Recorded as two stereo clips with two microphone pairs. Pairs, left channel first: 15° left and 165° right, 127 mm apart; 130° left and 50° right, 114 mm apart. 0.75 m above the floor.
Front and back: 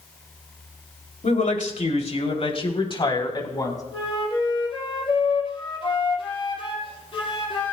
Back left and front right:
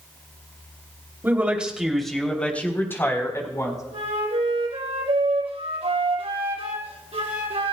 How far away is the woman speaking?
About 2.5 m.